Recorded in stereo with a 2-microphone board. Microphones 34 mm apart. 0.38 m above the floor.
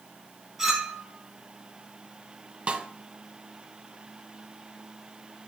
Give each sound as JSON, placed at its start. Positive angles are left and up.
{"t": 0.6, "sound": "a clink", "side_deg": -5, "distance_m": 2.0}
{"t": 2.7, "sound": "a snare drum", "side_deg": -35, "distance_m": 0.6}